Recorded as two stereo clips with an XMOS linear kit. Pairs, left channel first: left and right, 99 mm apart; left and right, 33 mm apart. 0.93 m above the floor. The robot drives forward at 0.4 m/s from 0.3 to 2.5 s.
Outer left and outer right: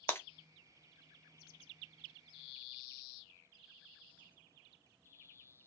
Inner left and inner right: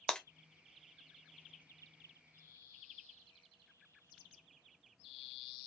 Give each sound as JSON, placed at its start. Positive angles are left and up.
{"t": 0.1, "sound": "breaking glass", "side_deg": 20, "distance_m": 0.7}